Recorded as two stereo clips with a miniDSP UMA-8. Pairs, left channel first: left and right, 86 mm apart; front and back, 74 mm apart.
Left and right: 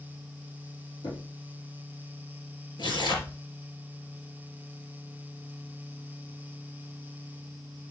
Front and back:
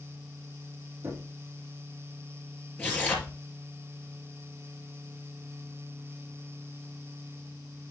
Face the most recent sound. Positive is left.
turn(degrees=70)